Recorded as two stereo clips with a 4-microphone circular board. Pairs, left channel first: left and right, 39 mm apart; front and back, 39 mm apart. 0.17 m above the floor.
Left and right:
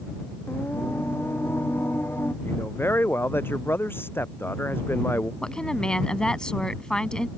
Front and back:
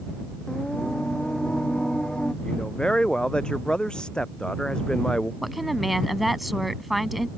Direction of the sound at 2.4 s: 70° left.